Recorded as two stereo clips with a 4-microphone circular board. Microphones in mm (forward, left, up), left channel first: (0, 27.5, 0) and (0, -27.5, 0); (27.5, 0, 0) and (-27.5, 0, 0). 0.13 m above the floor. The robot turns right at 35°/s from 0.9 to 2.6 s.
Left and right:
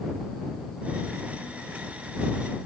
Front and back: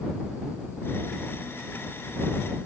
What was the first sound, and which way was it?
Only background noise.